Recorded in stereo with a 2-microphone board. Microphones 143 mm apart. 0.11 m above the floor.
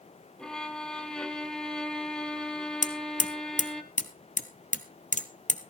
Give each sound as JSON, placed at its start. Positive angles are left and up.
{"t": 0.4, "sound": "a violin", "side_deg": 5, "distance_m": 1.4}
{"t": 2.8, "sound": "hammering", "side_deg": 65, "distance_m": 1.0}